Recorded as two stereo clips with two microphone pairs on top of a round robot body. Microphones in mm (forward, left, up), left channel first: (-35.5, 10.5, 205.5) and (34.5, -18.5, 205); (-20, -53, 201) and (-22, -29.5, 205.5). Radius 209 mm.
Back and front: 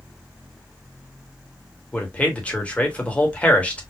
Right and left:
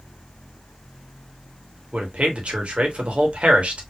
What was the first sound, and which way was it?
A man speaking, 90° left.